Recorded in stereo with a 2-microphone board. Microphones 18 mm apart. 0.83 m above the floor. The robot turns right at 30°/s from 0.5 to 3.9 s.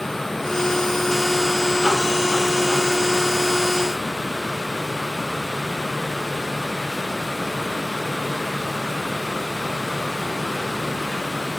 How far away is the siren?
No siren in this recording.